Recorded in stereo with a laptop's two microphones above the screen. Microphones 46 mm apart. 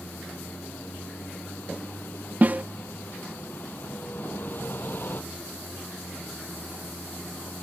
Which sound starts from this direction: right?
A snare drum, at 2.4 s.